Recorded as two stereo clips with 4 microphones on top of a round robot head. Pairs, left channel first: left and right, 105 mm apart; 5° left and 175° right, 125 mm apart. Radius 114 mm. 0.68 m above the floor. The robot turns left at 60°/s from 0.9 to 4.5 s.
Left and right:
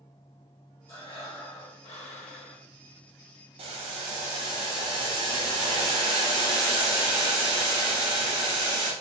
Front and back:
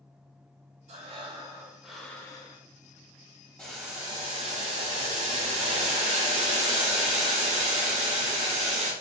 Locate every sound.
0.9 s breathing: 155° left, 0.9 m; by 2.6 s 50° left, 0.9 m
3.6 s boiling: 75° right, 0.7 m; by 8.9 s 130° right, 0.7 m